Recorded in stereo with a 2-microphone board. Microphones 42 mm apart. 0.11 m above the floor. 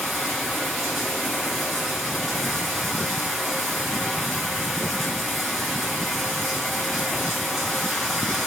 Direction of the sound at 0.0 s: 5° left (ahead or behind).